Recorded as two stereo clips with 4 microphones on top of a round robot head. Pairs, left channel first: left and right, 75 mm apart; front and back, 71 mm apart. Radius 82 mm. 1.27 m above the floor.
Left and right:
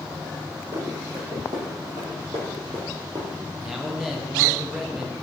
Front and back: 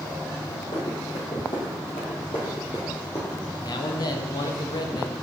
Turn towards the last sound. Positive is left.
turn(degrees=-5)